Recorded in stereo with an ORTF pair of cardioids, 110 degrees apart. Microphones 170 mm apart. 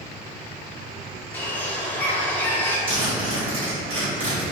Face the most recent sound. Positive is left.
turn(degrees=-30)